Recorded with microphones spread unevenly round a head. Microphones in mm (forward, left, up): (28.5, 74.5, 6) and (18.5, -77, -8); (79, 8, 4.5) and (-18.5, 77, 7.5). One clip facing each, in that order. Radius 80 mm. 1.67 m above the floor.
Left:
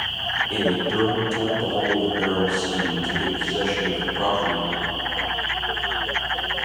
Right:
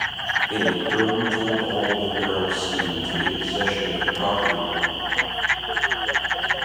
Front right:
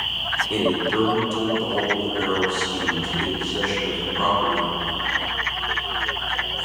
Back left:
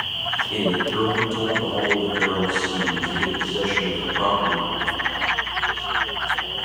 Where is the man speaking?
5° right, 0.6 m; by 4.7 s 70° left, 2.5 m.